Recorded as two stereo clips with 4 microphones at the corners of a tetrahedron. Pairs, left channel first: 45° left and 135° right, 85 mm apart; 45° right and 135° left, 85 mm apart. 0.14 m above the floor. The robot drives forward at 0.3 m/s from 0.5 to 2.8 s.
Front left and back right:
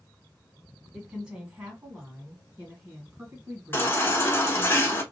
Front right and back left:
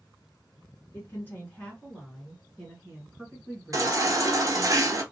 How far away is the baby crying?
About 0.7 m.